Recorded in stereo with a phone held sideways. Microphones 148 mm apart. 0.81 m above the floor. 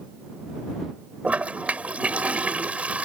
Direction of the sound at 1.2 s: 10° right (ahead or behind).